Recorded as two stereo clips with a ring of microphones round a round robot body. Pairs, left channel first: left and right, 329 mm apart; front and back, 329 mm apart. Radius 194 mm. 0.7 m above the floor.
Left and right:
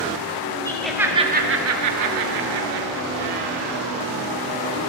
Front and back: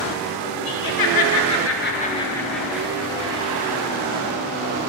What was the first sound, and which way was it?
Laughter, 10° left.